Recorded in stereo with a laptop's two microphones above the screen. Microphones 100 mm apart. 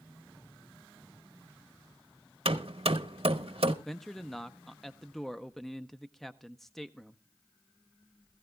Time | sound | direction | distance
2.5 | hammering | 75° right (ahead or behind) | 0.8 m
3.9 | a man speaking | 5° left (ahead or behind) | 0.5 m